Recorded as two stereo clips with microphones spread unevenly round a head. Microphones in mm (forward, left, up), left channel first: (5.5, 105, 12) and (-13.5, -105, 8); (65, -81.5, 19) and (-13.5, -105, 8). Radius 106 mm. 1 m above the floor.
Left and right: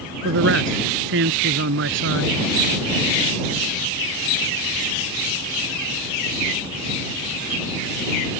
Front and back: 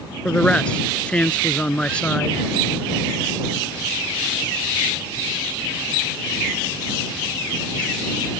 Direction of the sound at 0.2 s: 60° right.